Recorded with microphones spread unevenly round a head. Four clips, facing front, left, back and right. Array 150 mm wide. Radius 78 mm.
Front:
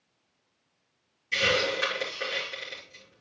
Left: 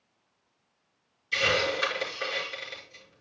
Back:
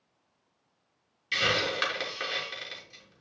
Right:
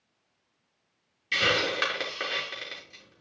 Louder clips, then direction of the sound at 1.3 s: Even, front 2 dB; 100° right.